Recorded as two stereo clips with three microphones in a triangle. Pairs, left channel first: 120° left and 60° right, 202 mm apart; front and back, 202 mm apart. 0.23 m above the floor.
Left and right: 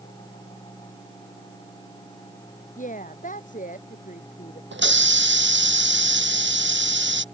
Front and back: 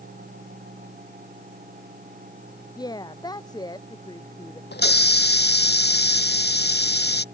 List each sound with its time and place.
2.8 s a woman speaking: 70° left
4.7 s a hiss: 35° right